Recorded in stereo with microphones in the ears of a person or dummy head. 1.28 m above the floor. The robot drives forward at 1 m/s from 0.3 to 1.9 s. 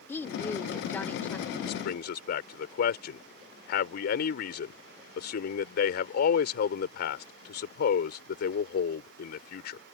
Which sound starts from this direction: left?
A man speaking, at 1.6 s.